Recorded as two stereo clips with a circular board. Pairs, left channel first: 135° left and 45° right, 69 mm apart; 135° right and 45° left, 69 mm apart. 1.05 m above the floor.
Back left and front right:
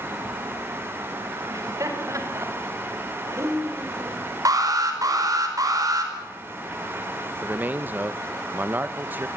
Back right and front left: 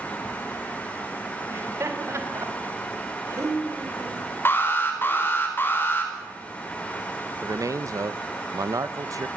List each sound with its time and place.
1.5 s laughter: 5° right, 4.5 m; by 5.3 s 10° left, 6 m
4.5 s an alarm: 75° right, 4.5 m
7.4 s a man speaking: 15° left, 0.9 m